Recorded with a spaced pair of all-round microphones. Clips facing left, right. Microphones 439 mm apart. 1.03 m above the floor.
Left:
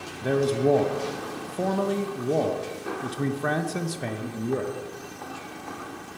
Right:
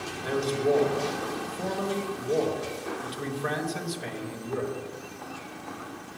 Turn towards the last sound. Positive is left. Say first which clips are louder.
# left 4 dB
turn(degrees=65)  # may be behind; listen again after turning